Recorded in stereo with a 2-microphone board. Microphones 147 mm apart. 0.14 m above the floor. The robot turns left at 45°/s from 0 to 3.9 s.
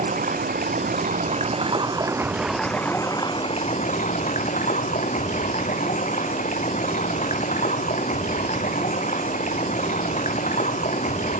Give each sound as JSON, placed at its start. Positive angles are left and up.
{"t": 0.0, "sound": "running water", "azimuth_deg": -65, "distance_m": 1.0}